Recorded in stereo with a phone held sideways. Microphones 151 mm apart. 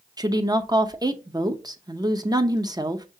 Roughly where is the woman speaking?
Right.